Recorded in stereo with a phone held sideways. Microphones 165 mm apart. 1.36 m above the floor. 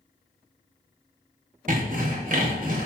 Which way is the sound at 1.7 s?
55° right (ahead or behind).